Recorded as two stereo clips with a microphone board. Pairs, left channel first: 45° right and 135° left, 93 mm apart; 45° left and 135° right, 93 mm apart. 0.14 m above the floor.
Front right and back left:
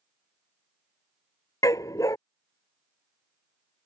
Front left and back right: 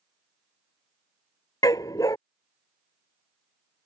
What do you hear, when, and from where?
1.6 s a dog barking: straight ahead